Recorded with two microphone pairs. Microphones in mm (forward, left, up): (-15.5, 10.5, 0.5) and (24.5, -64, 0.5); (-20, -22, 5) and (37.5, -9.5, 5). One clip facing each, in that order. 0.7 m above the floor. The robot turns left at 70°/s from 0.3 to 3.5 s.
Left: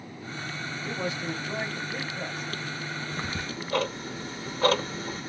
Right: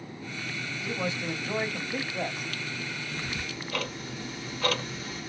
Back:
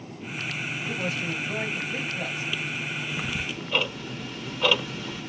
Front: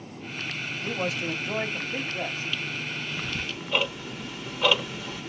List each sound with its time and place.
0.8 s a man speaking: 45° left, 1.0 m; by 2.5 s 75° right, 1.0 m
3.1 s ticking: 130° left, 0.7 m; by 5.3 s 100° left, 0.7 m